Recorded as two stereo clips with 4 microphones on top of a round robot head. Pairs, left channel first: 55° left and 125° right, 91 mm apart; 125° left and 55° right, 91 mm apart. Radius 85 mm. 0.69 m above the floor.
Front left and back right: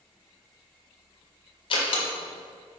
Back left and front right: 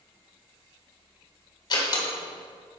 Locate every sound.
1.7 s a door slam: 85° left, 1.5 m